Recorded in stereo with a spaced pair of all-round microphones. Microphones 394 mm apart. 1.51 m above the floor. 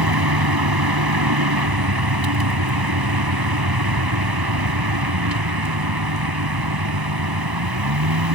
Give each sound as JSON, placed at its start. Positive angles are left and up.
{"t": 0.0, "sound": "a vehicle", "side_deg": -70}